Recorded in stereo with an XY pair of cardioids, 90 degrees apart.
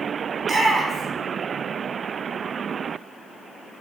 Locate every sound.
0.4 s a shout: 45° right, 2.5 m